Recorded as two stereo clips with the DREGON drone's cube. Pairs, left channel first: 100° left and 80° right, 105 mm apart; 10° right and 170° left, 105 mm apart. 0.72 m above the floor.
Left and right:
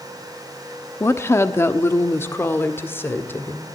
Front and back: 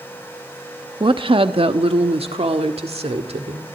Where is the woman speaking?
155° left, 0.9 m; by 3.7 s 170° left, 2.5 m.